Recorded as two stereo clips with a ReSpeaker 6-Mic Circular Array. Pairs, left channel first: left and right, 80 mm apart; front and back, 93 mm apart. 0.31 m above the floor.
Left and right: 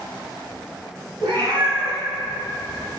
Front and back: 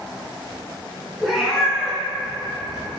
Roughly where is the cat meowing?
Right.